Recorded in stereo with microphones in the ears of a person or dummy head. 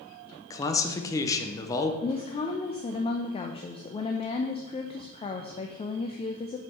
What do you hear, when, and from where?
0.5 s a man speaking: 15° left (ahead or behind), 0.6 m
2.0 s a woman speaking: 20° left (ahead or behind), 0.5 m